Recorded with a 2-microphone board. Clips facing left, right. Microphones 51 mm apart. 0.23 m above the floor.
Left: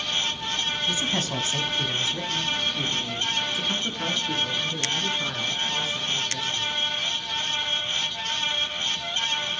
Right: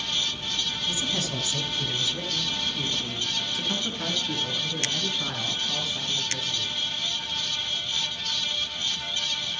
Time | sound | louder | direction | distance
0.9 | a man speaking | left 3 dB | 45° left (ahead or behind) | 2 m